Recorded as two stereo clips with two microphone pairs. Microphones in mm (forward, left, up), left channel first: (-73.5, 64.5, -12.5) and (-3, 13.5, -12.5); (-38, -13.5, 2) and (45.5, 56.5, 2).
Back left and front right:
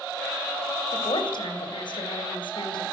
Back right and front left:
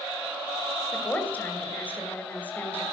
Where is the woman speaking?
145° left, 3 m.